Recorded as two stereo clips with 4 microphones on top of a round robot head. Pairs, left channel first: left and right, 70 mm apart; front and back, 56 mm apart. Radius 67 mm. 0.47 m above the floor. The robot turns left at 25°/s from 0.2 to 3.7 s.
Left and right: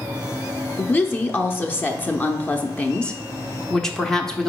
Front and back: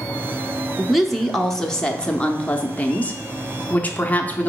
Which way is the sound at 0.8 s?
90° left.